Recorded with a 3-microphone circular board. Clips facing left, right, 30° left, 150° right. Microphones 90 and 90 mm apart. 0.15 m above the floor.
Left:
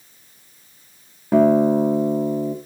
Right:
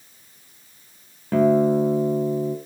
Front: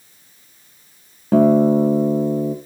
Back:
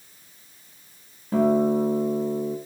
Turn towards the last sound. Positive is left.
turn(degrees=15)